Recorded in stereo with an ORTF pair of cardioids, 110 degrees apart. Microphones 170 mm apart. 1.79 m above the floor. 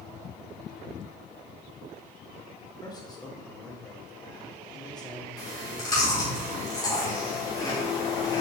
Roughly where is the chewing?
Ahead left.